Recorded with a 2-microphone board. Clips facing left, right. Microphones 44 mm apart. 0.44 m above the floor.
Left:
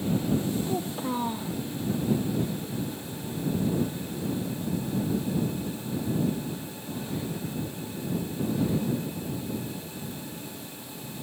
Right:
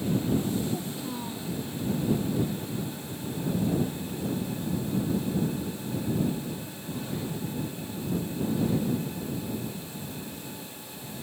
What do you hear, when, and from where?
0.7 s a child speaking: 35° left (ahead or behind)